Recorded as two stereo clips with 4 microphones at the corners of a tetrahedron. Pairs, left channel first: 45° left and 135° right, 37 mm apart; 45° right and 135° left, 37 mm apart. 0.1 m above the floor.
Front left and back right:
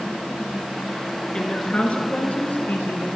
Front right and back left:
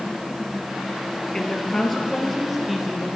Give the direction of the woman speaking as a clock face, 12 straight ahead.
12 o'clock.